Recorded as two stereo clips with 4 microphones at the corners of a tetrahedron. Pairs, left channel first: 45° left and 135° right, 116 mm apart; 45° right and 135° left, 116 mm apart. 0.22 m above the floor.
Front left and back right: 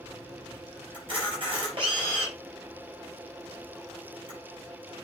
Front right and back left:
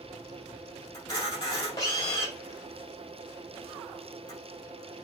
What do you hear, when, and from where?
0.9 s a camera shutter: 95° right, 5 m